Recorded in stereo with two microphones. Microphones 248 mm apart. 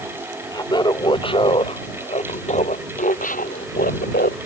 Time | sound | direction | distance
0.5 | laughter | 15° left (ahead or behind) | ?